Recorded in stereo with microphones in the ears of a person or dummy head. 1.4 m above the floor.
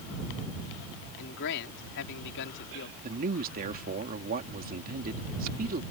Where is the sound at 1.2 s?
60° left (ahead or behind).